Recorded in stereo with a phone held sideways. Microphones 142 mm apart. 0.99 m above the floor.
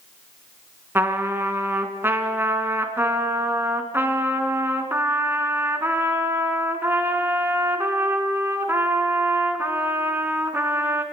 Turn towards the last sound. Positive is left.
turn(degrees=-15)  # may be behind; listen again after turning